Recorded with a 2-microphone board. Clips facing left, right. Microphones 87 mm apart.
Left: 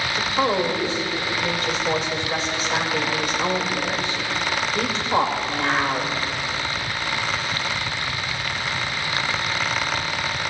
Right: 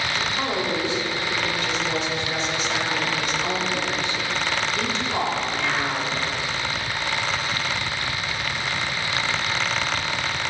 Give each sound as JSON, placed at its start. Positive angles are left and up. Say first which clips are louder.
{"t": 0.1, "sound": "a woman speaking", "louder": "left 7 dB", "side_deg": 50, "distance_m": 2.0}